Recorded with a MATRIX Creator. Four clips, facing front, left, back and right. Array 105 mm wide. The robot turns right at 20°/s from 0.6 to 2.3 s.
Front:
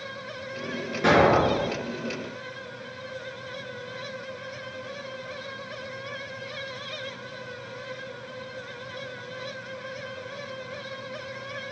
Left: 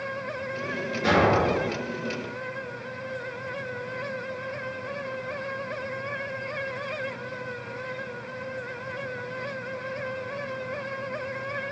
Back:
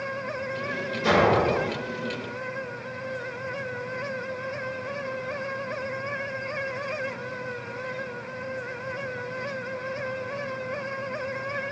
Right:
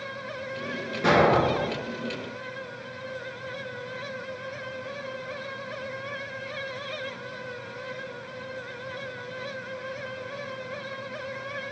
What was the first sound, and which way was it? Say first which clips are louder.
An explosion: right 1 dB, front 2 dB; 20° right.